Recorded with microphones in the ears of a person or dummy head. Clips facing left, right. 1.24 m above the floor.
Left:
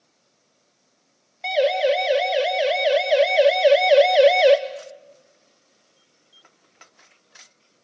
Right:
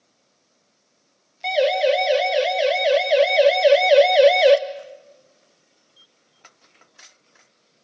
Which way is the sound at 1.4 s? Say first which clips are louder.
Right 1 dB; centre (ahead or behind).